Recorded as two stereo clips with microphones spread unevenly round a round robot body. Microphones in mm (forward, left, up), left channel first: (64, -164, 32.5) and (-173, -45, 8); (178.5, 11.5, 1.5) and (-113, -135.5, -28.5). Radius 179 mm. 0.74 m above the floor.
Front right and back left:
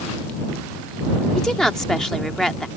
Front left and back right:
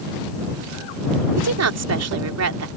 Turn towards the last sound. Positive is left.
turn(degrees=-115)